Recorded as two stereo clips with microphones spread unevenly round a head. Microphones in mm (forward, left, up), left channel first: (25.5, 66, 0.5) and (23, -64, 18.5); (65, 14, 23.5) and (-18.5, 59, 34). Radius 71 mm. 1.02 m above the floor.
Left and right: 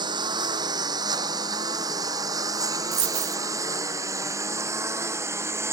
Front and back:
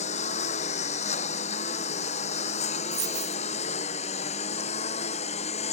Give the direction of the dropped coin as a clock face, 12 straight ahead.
5 o'clock.